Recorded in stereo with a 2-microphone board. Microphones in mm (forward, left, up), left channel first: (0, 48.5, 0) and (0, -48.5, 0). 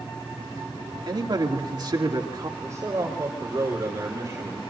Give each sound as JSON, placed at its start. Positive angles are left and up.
{"t": 1.1, "sound": "a man speaking", "side_deg": -45, "distance_m": 2.5}
{"t": 2.6, "sound": "a man speaking", "side_deg": -30, "distance_m": 4.0}